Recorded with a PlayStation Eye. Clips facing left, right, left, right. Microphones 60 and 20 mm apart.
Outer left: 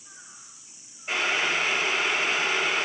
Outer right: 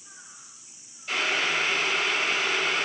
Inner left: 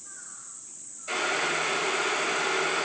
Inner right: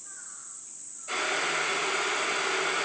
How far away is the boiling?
About 4.5 m.